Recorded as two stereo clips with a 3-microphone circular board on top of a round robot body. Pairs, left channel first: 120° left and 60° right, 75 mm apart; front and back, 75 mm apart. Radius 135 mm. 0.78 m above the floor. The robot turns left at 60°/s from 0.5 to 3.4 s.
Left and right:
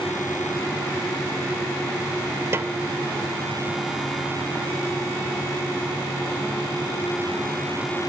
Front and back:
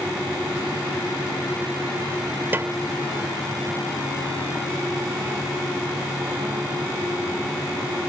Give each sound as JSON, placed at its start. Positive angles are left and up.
{"t": 2.5, "sound": "a snare drum", "azimuth_deg": -115}